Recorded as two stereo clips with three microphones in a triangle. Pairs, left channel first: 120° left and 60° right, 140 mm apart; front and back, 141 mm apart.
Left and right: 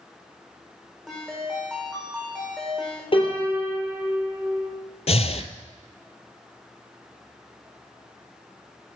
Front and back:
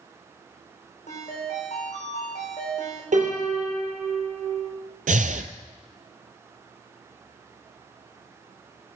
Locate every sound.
1.1 s a ringtone: 35° left, 4 m
3.1 s a piano: 165° left, 3 m
5.1 s breathing: 160° left, 0.6 m